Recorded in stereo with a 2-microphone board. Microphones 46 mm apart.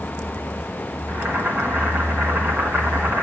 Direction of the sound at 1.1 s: 55° right (ahead or behind).